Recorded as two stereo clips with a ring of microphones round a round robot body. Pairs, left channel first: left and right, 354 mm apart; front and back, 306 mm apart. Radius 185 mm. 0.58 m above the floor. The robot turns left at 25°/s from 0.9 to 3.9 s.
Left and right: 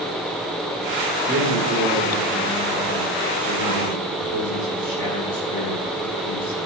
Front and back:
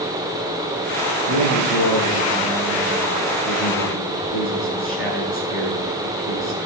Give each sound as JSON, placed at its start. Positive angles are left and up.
{"t": 1.3, "sound": "a man speaking", "azimuth_deg": -160, "distance_m": 8.5}